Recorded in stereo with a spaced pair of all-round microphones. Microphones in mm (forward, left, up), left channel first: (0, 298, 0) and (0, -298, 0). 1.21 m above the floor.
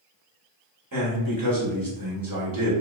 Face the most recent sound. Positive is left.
turn(degrees=-35)  # may be behind; listen again after turning